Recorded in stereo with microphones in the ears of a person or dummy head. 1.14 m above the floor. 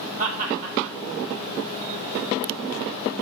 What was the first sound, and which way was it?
Laughter, 40° right (ahead or behind).